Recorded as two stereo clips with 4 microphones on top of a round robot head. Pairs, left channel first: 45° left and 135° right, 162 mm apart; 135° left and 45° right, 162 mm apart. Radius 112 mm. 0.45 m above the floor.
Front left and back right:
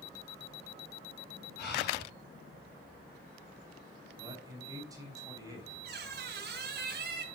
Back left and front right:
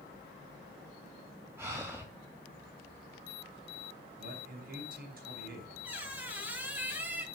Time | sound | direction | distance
1.6 | breathing | 35° left | 6.5 m
4.2 | a man speaking | 70° right | 4.5 m
5.8 | a squeak | 125° right | 3 m